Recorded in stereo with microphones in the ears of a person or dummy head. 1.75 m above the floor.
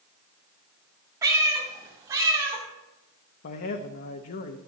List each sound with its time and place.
1.2 s a cat meowing: 20° right (ahead or behind), 2.0 m; by 2.6 s 15° right (ahead or behind), 3 m
3.4 s a man speaking: 50° left (ahead or behind), 1.0 m